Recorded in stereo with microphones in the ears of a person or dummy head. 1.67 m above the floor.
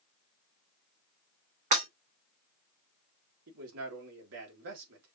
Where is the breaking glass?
45° right (ahead or behind), 2.5 m.